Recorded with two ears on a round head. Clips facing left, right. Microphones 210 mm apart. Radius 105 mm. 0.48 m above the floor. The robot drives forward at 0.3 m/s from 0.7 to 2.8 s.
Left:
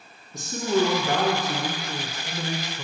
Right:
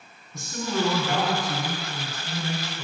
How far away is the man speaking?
About 1.0 m.